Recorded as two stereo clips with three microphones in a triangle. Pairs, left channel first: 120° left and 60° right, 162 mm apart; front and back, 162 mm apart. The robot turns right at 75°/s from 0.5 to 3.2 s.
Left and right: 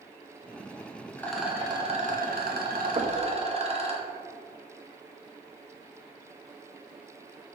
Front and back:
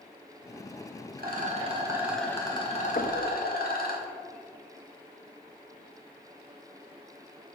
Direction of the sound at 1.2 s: 165° right.